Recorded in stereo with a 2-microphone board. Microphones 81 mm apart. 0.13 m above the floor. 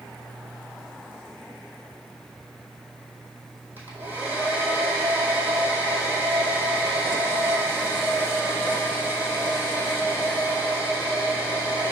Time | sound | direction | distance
3.8 | a hair dryer | 25° right (ahead or behind) | 2 m